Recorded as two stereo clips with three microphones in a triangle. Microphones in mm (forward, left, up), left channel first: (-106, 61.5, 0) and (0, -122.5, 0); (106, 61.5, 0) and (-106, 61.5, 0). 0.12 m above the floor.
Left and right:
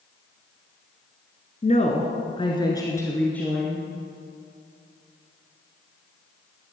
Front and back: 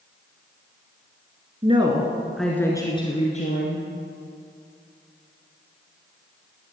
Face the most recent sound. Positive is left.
turn(degrees=30)